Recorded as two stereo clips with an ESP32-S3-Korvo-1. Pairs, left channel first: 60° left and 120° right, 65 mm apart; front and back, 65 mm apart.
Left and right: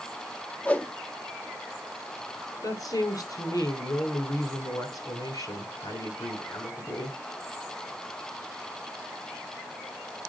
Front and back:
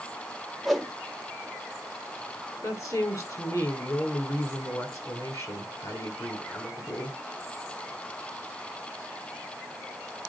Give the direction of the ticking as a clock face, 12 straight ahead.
I don't hear ticking.